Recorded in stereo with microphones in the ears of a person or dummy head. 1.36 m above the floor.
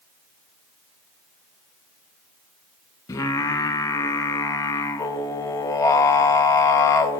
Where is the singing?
20° left (ahead or behind), 0.7 m.